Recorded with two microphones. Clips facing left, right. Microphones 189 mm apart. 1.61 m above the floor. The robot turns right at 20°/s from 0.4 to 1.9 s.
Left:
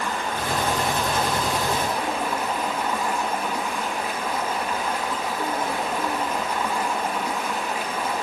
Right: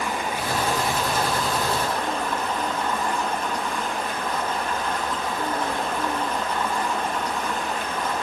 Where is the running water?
15° right, 1.2 m; by 8.2 s 15° left, 1.2 m.